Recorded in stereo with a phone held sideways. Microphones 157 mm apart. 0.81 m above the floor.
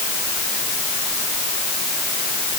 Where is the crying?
I don't hear crying.